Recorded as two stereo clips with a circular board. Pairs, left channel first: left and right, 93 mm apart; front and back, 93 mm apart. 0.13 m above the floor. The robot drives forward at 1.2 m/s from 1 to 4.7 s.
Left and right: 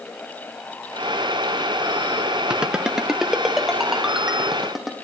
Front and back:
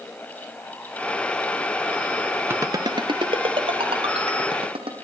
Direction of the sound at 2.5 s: 160° right.